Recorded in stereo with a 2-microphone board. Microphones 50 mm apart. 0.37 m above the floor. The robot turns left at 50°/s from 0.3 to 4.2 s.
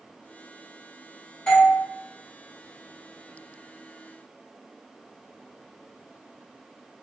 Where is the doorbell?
20° left (ahead or behind), 1.6 m; by 1.8 s 25° left (ahead or behind), 1.6 m.